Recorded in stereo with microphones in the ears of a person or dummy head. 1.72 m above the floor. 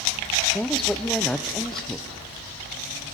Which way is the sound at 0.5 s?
5° left (ahead or behind).